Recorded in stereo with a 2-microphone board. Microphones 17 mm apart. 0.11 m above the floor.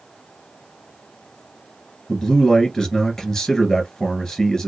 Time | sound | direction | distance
2.1 | a man speaking | 25° left (ahead or behind) | 1.2 m